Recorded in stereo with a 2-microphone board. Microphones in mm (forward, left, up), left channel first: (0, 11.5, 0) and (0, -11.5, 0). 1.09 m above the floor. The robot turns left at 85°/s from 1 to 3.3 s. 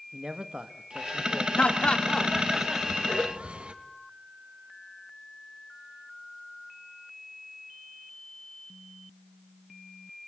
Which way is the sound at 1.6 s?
65° left (ahead or behind).